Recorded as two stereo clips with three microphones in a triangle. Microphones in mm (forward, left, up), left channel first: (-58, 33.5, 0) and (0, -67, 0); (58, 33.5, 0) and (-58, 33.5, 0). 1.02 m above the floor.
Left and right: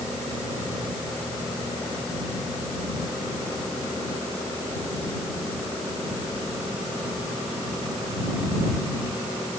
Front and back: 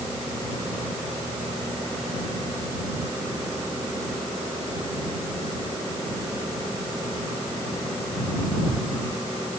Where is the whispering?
I don't hear whispering.